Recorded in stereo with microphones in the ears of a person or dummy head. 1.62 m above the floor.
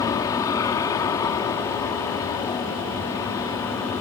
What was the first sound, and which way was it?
An aircraft, 20° left (ahead or behind).